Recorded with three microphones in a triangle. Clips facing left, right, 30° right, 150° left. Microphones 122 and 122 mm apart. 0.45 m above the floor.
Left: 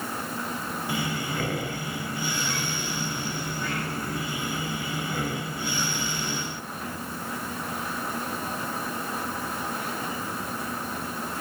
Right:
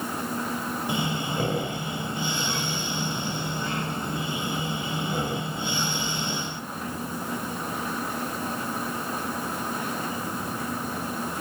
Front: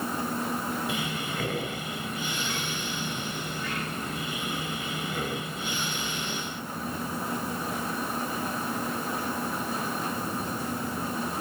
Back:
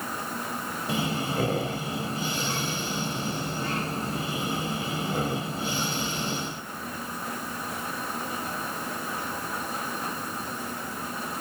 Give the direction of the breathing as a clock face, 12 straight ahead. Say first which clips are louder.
Right 1 dB, back 4 dB; 5 o'clock.